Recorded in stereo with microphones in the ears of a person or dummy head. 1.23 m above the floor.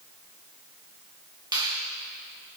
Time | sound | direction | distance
1.5 | a finger snap | 30° right (ahead or behind) | 1.9 m